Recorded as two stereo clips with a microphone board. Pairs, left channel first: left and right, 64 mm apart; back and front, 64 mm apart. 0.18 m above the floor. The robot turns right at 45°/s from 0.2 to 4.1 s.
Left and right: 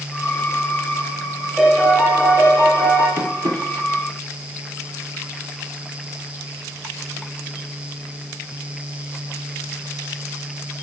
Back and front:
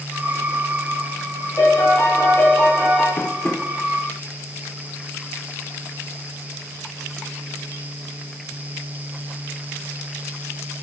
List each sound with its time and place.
1.6 s a piano: 170° right, 4.5 m; by 3.1 s 100° right, 4.5 m
3.2 s tapping: 130° right, 1.8 m; by 3.6 s 110° right, 1.8 m